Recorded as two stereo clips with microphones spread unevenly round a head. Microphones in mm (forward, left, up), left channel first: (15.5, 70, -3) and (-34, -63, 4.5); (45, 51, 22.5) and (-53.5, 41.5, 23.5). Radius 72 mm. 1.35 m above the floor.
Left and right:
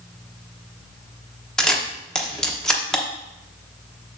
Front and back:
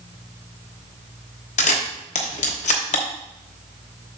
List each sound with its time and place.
1.6 s a camera shutter: 15° right, 1.0 m